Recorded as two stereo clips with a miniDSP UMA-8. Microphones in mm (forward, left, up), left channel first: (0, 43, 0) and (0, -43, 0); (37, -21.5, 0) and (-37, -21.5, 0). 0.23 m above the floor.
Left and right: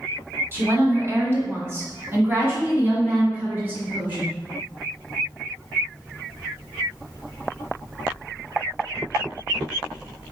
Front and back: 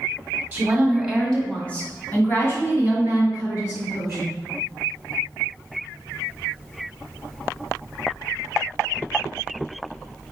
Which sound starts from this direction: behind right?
A woman speaking, at 0.5 s.